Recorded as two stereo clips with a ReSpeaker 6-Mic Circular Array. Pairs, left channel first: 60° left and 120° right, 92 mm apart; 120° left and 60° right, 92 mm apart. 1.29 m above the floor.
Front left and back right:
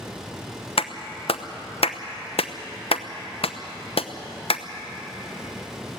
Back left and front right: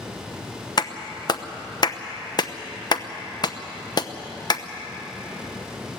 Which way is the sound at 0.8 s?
75° left.